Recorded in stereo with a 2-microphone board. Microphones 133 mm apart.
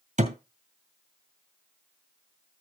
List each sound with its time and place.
0.2 s a thud: 65° right (ahead or behind), 2.0 m